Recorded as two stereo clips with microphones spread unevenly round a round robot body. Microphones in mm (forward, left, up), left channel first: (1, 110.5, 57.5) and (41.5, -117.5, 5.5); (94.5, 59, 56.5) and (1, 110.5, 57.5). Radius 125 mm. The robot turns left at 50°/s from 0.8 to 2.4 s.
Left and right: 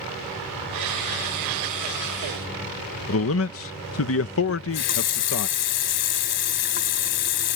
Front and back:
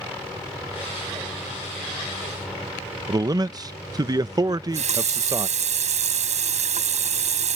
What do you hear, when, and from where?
3.1 s a man speaking: 110° left
4.5 s a running tap: 150° left